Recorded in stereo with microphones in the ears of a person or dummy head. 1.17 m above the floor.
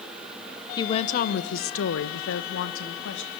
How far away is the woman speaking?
About 0.8 m.